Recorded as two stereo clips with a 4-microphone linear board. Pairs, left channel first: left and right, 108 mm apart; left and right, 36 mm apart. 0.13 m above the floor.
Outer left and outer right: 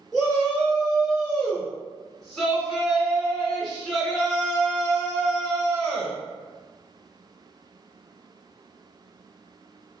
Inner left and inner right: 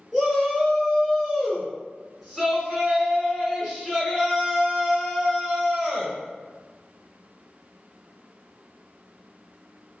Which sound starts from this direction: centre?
A shout, at 0.1 s.